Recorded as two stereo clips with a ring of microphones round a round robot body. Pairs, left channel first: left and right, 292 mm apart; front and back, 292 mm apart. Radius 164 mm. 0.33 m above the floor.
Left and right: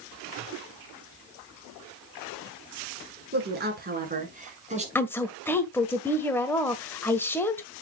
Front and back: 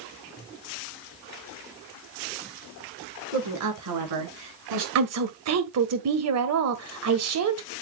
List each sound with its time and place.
3.3 s a woman speaking: 145° right, 5 m; by 4.8 s 155° right, 5 m
5.0 s a woman speaking: 170° left, 1.5 m